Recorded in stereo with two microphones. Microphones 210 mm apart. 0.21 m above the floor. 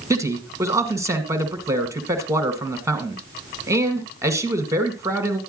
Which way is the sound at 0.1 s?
15° right (ahead or behind).